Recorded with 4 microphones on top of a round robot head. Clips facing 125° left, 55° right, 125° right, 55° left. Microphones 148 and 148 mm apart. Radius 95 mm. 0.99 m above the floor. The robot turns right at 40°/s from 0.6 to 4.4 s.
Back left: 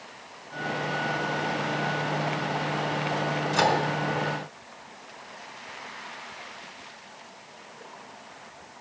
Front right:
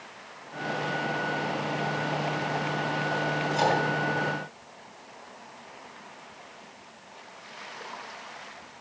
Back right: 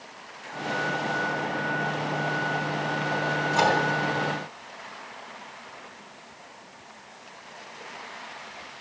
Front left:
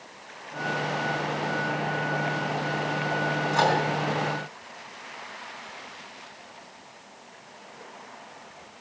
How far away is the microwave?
About 4.5 m.